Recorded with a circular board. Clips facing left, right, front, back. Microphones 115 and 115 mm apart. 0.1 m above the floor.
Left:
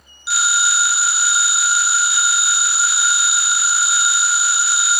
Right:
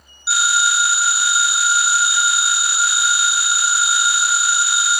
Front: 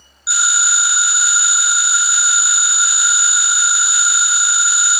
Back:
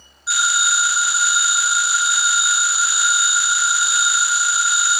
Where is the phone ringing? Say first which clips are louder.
Right 2 dB, even; 75° right, 1.1 m.